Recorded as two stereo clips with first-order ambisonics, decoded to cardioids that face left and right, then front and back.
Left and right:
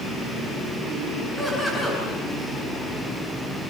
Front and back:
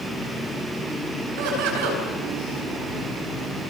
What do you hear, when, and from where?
1.4 s laughter: 175° left, 9.5 m